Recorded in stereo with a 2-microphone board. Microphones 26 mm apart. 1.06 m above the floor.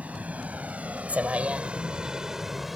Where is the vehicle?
85° right; by 2.8 s 5° right (ahead or behind).